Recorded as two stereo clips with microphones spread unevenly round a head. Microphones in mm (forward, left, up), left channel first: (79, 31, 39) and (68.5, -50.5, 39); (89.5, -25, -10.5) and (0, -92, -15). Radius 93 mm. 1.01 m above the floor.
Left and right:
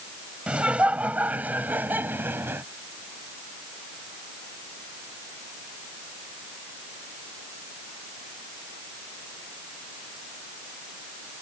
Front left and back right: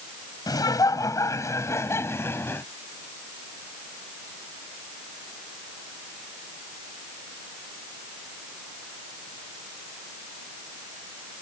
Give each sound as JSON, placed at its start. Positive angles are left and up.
{"t": 0.5, "sound": "laughter", "azimuth_deg": -20}